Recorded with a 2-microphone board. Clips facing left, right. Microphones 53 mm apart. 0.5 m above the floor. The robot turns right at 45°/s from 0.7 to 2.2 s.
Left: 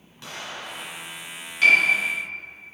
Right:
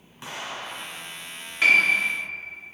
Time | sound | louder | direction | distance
0.2 | an explosion | right 1 dB | 20° right (ahead or behind) | 1.4 m
1.6 | a piano | left 1 dB | 20° right (ahead or behind) | 1.7 m